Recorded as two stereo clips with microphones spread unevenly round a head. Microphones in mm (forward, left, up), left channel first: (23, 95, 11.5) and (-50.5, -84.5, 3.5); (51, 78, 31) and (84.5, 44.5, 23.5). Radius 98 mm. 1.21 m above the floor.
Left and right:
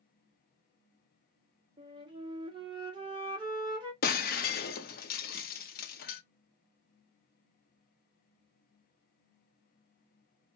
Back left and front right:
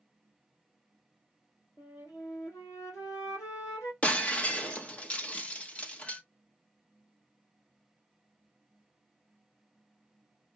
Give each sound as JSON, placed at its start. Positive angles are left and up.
{"t": 1.8, "sound": "a flute", "azimuth_deg": 180, "distance_m": 1.7}
{"t": 4.0, "sound": "breaking glass", "azimuth_deg": 90, "distance_m": 0.8}